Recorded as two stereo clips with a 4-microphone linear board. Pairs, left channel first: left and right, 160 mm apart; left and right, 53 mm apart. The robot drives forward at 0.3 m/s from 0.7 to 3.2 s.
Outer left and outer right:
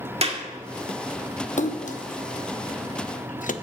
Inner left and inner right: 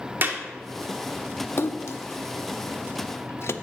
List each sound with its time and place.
0.2 s a clap: 40° right (ahead or behind), 1.9 m
1.6 s a splash: 55° left (ahead or behind), 0.7 m; by 3.5 s 60° left (ahead or behind), 0.7 m